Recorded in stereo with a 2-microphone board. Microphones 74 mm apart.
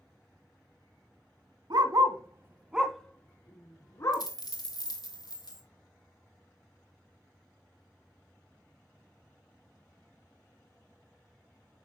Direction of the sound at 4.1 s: 60° left (ahead or behind).